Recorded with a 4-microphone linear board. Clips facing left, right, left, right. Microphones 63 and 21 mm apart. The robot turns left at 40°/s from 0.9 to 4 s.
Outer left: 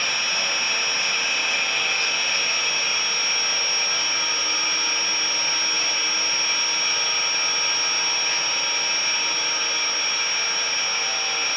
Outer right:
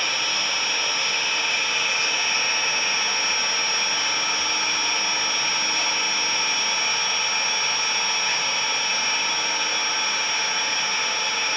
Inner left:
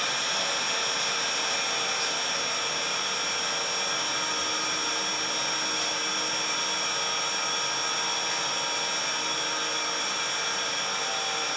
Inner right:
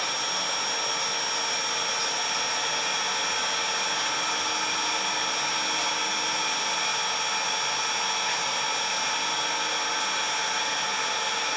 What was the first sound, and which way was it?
An engine running, 35° left.